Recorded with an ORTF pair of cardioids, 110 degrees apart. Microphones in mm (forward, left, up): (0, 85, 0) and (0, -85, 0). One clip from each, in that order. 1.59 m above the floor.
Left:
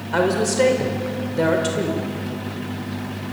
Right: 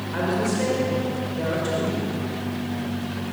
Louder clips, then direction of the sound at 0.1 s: Left 6 dB; 60° left.